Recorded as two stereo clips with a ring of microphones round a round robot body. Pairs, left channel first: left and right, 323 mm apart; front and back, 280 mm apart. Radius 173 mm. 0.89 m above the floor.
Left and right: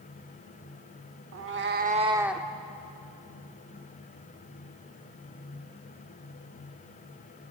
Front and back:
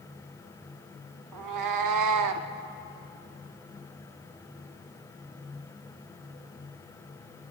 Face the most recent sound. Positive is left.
turn(degrees=170)